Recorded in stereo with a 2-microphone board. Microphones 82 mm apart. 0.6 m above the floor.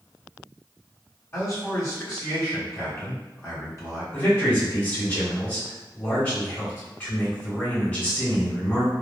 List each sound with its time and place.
1.3 s a man speaking: 35° left (ahead or behind), 1.8 m
4.1 s a man speaking: 20° left (ahead or behind), 1.7 m